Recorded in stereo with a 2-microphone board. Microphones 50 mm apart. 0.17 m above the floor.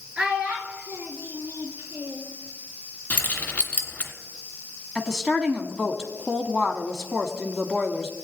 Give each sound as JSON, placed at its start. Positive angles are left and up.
{"t": 0.2, "sound": "a child speaking", "side_deg": -20, "distance_m": 2.5}
{"t": 3.1, "sound": "keys jangling", "side_deg": 25, "distance_m": 1.4}
{"t": 5.0, "sound": "a woman speaking", "side_deg": -10, "distance_m": 1.2}